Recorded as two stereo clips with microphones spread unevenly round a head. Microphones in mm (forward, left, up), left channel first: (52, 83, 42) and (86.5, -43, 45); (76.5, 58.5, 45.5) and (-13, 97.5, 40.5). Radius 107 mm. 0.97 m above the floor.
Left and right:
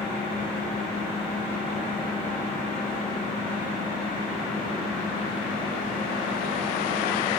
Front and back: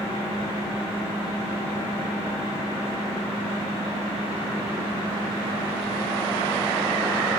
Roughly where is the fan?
Behind.